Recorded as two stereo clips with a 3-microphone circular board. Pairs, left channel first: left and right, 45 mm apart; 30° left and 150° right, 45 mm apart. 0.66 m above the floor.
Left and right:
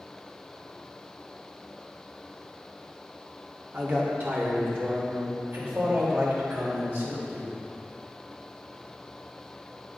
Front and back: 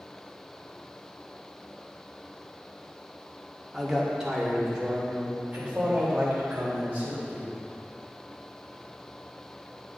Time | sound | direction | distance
3.7 | a man speaking | 65° right | 1.9 m